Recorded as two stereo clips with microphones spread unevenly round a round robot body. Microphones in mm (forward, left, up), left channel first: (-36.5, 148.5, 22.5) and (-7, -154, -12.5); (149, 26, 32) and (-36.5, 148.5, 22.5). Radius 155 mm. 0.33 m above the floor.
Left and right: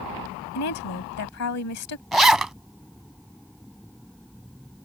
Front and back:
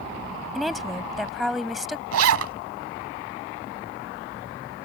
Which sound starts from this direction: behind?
A zipper, at 2.1 s.